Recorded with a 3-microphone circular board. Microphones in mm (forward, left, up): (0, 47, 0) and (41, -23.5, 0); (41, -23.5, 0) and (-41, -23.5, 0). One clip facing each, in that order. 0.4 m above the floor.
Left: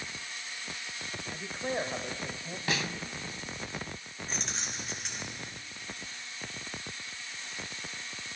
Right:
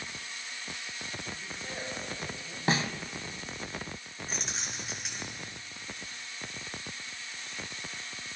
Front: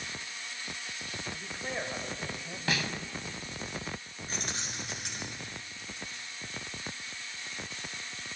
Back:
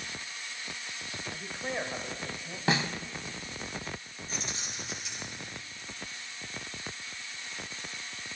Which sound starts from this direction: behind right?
A snare drum, at 2.7 s.